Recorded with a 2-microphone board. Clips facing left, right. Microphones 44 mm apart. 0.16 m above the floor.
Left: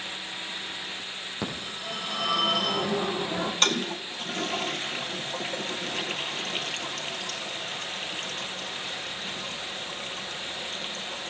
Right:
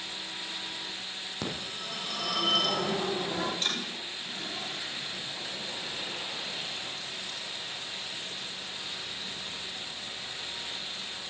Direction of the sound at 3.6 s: 65° left (ahead or behind).